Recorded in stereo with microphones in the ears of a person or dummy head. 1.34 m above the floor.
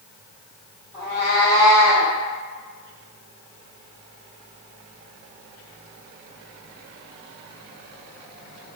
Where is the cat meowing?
35° left (ahead or behind), 1.4 m; by 2.1 s 10° left (ahead or behind), 1.7 m.